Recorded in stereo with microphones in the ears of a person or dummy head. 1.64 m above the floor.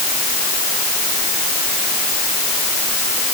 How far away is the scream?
No scream in this recording.